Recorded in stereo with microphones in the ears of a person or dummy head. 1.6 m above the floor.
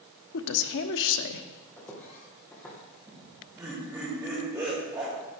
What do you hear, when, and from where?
0.3 s a woman speaking: 75° left (ahead or behind), 1.1 m
1.8 s footsteps: 15° left (ahead or behind), 3 m
3.1 s laughter: 15° right (ahead or behind), 3 m